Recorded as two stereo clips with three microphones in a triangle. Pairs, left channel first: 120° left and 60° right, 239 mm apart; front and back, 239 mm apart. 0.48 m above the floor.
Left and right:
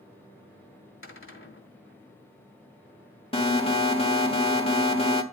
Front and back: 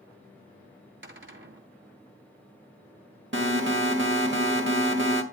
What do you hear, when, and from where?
1.0 s a cupboard door: 145° left, 1.7 m
3.3 s an alarm: straight behind, 1.3 m